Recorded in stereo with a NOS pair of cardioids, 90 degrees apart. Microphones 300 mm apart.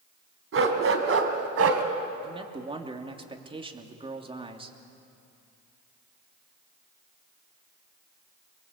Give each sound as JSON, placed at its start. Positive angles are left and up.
{"t": 0.5, "sound": "a dog barking", "azimuth_deg": -45, "distance_m": 3.5}
{"t": 2.2, "sound": "a man speaking", "azimuth_deg": -20, "distance_m": 3.0}